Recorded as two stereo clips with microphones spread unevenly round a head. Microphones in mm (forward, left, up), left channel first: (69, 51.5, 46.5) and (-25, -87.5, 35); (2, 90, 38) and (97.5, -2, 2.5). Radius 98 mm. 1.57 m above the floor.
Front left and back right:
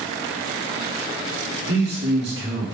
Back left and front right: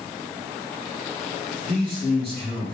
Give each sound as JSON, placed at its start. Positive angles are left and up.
{"t": 1.7, "sound": "a man speaking", "azimuth_deg": -105, "distance_m": 1.4}